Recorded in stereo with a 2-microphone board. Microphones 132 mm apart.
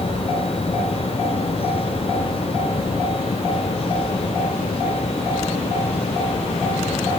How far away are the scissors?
I don't hear scissors.